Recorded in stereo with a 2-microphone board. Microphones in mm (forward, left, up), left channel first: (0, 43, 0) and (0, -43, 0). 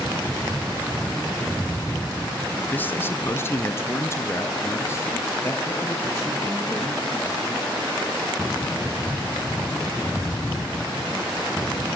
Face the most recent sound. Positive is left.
turn(degrees=25)  # may be behind; listen again after turning